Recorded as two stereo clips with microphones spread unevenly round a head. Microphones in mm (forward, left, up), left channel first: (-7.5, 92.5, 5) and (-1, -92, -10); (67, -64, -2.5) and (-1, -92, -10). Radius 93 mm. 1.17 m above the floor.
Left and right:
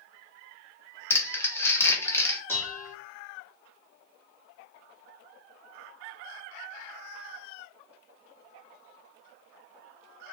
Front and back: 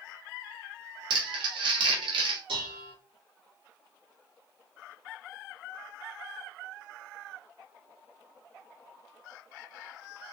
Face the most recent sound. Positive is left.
turn(degrees=170)